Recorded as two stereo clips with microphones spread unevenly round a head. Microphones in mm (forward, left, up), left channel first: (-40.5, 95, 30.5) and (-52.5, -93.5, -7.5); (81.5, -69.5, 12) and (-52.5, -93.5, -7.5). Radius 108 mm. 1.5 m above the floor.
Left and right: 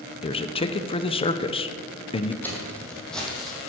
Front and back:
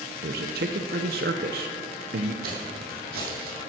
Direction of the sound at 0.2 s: 145° left.